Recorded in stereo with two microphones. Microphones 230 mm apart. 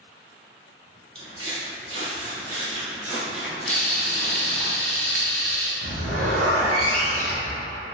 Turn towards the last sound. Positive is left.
turn(degrees=-80)